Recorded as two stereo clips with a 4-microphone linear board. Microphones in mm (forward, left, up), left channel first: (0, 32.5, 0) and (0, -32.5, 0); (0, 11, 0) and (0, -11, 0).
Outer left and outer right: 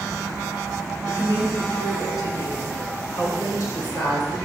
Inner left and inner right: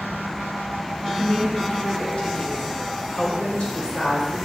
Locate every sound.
1.1 s a woman speaking: 65° left (ahead or behind), 2.5 m; by 4.3 s 80° left, 4.5 m